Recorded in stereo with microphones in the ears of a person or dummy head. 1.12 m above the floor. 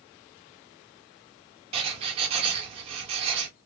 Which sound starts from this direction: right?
Writing, at 1.7 s.